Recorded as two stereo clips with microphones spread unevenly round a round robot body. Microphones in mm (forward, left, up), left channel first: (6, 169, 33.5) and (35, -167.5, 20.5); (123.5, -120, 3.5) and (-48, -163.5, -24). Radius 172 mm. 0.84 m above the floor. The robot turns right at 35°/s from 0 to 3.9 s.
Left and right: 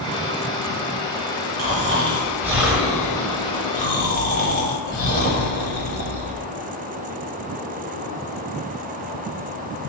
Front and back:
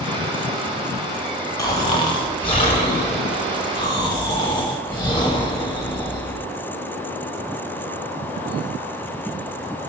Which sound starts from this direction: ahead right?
Snoring, at 1.6 s.